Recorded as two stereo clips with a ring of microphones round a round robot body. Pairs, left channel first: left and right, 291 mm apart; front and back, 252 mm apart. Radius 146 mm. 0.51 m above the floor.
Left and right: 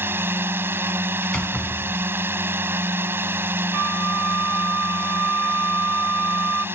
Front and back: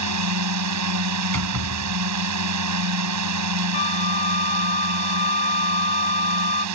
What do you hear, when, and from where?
0.0 s a drone: 170° right
1.2 s a door slam: 175° left
3.7 s a flute: 65° right